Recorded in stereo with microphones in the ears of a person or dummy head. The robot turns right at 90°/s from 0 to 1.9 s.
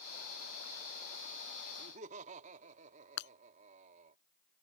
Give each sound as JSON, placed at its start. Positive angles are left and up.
{"t": 1.8, "sound": "laughter", "side_deg": -55}
{"t": 3.2, "sound": "breaking glass", "side_deg": 65}